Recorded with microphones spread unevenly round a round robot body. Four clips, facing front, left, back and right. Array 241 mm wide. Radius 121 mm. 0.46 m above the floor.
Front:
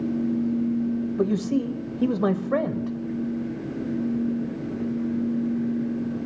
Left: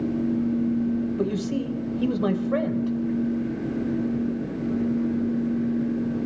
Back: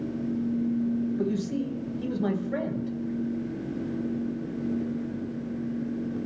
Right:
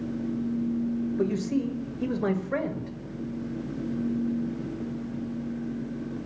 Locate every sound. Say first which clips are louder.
1.2 s a man speaking: left 1 dB, front 5 dB; 10° left, 2 m